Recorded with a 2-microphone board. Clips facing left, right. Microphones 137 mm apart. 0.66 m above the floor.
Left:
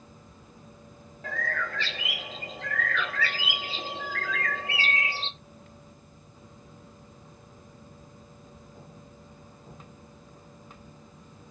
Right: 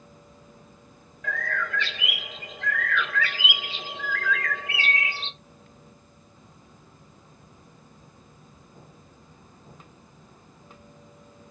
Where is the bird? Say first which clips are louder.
Right 2 dB; 35° left (ahead or behind), 1.0 m.